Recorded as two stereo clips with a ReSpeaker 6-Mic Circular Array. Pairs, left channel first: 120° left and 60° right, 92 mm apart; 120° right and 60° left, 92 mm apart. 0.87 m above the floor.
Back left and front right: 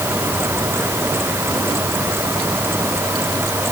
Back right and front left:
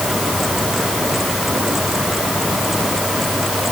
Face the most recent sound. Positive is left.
No sound to turn to.